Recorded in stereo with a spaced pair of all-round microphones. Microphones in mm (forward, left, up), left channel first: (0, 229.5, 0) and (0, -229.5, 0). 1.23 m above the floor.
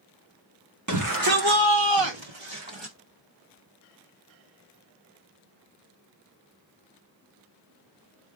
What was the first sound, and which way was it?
A shout, 40° right (ahead or behind).